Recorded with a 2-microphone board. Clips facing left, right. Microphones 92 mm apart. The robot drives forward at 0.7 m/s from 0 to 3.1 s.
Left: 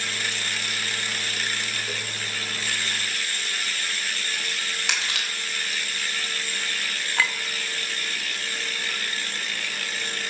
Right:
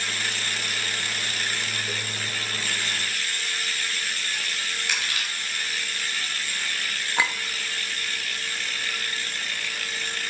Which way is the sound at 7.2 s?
15° right (ahead or behind).